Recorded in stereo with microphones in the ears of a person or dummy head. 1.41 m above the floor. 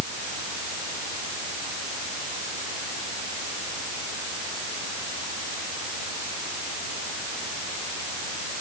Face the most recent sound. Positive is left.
No sound to turn to.